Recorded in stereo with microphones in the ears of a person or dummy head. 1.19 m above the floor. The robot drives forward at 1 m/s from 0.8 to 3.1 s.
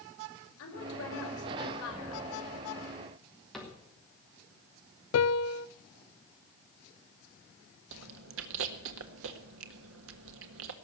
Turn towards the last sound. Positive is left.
turn(degrees=-80)